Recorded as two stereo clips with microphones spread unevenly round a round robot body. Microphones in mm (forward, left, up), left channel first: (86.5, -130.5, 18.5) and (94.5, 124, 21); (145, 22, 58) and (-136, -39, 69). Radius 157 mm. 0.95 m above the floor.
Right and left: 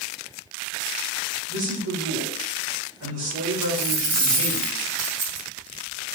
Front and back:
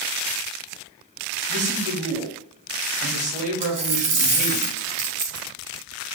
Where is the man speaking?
125° left, 1.6 m.